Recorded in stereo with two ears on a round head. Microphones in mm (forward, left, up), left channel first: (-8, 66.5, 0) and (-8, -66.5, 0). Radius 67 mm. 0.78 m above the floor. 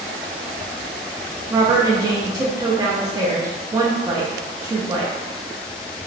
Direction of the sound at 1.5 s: 25° right (ahead or behind).